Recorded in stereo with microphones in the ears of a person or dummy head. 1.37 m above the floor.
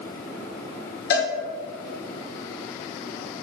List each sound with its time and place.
1.1 s a cowbell: 55° left (ahead or behind), 1.1 m